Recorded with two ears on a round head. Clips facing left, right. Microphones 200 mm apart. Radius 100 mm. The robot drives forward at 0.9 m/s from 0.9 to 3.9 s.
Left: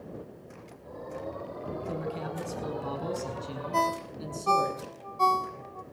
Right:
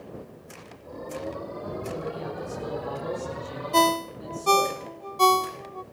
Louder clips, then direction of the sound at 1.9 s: Right 2 dB; 70° left (ahead or behind).